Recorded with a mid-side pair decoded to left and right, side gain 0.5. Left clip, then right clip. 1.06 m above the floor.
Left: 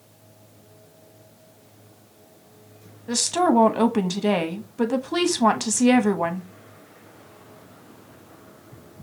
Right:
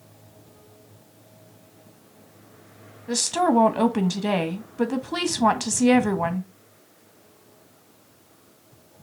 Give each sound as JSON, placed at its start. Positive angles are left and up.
{"t": 3.1, "sound": "a woman speaking", "azimuth_deg": 5, "distance_m": 1.1}